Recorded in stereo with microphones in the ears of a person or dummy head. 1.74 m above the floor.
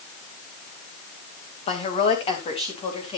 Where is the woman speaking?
35° left (ahead or behind), 2.5 m.